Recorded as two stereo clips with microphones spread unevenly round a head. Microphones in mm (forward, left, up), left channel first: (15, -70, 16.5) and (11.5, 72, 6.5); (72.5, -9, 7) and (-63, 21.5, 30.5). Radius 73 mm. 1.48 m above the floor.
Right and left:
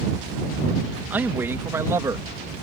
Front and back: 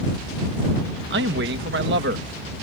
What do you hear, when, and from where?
1.1 s a man speaking: 170° left; by 2.5 s 160° left